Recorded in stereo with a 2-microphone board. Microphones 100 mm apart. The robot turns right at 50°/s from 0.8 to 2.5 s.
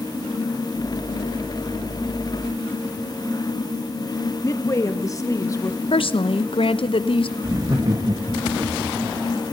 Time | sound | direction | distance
4.4 | a woman speaking | 35° left (ahead or behind) | 1.7 m
5.9 | a woman speaking | 60° left (ahead or behind) | 0.9 m
7.4 | laughter | 40° right (ahead or behind) | 1.6 m